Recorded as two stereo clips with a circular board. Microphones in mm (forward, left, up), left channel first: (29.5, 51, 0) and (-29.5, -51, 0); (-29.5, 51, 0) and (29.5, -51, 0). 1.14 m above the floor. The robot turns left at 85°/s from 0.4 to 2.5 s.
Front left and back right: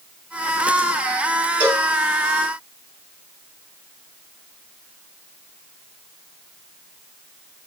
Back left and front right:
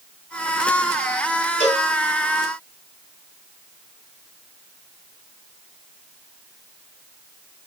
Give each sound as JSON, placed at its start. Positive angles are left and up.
{"t": 1.6, "sound": "a cowbell", "azimuth_deg": 140, "distance_m": 2.5}